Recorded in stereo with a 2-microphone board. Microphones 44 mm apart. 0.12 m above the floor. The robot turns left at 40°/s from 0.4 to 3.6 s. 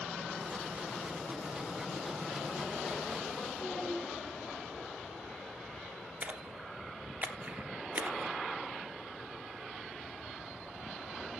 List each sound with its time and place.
3.6 s a child speaking: 10° left (ahead or behind), 4.5 m
6.2 s a splash: 35° right (ahead or behind), 1.3 m